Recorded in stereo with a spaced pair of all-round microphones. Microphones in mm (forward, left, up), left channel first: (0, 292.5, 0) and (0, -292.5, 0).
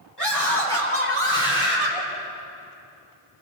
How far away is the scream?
About 6 m.